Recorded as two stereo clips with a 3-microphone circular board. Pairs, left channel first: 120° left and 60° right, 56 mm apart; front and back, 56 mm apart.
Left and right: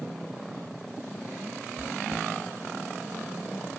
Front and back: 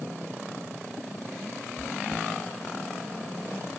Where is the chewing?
130° left, 1.9 m.